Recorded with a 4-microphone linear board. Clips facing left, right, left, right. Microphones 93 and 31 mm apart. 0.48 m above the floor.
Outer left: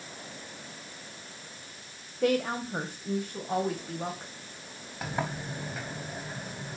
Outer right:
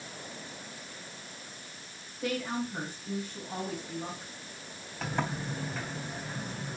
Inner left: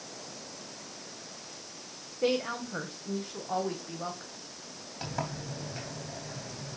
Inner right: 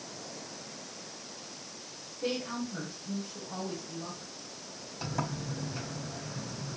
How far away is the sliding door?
About 3.5 m.